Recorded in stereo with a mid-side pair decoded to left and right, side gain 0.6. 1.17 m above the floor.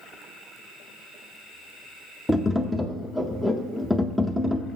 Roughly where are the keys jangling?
No keys jangling in this recording.